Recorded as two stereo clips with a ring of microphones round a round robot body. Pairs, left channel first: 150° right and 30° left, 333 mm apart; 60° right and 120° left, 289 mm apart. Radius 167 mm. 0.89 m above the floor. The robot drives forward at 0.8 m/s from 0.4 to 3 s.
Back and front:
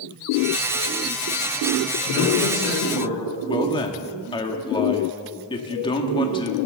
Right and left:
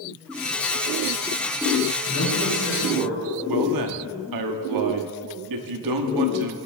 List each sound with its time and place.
2.1 s a man speaking: 110° right, 6.5 m; by 3.2 s 115° right, 7 m
3.5 s a man speaking: 135° left, 1.5 m